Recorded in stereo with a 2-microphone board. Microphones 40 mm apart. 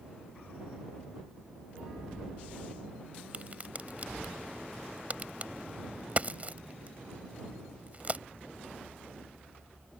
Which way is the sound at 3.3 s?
35° right (ahead or behind).